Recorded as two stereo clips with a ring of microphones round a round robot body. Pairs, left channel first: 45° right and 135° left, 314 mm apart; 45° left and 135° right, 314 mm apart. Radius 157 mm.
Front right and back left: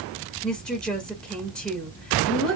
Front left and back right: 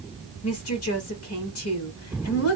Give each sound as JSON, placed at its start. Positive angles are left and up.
{"t": 0.4, "sound": "a woman speaking", "azimuth_deg": 40, "distance_m": 1.5}